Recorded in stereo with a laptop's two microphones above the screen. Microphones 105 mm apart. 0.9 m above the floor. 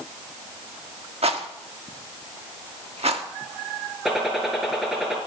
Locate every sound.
1.2 s a rattle: 75° right (ahead or behind), 1.3 m
4.0 s a gunshot: centre (ahead or behind), 4 m